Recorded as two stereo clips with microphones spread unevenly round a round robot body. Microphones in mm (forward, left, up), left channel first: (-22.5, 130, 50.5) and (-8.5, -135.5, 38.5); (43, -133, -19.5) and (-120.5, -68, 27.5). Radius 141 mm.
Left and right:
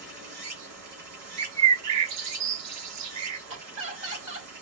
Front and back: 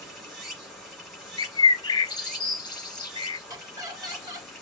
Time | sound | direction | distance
0.0 | running water | 110° right | 2.5 m
1.4 | a bird | 80° right | 1.1 m
3.5 | laughter | 125° right | 3 m